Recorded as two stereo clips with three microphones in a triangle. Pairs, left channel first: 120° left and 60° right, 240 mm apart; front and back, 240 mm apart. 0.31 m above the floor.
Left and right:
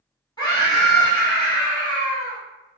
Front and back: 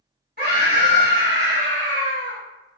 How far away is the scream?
About 1.7 m.